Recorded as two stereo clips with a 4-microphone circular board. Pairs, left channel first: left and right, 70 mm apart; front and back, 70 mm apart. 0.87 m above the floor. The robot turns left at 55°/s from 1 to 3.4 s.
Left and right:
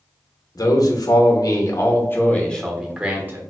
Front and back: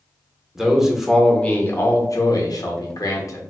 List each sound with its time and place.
0.6 s a man speaking: 95° left, 0.8 m; by 3.4 s 35° right, 0.8 m